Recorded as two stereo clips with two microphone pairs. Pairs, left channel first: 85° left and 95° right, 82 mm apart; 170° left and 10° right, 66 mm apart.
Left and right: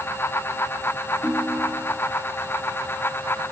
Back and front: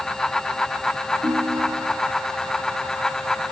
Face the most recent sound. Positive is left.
turn(degrees=-15)